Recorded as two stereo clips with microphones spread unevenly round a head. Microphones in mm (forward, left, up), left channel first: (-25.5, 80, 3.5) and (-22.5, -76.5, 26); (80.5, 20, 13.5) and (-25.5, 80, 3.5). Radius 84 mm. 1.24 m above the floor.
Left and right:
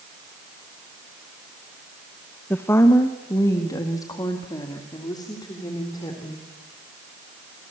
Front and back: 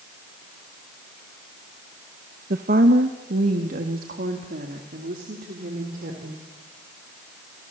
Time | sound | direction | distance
2.5 | a woman speaking | 170° left | 1.0 m